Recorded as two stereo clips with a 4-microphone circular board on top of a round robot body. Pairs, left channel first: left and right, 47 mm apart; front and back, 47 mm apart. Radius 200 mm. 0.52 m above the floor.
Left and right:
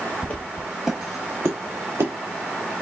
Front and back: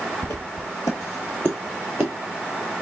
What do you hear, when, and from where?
0.2 s footsteps: 30° left, 0.9 m; by 2.1 s 100° right, 0.9 m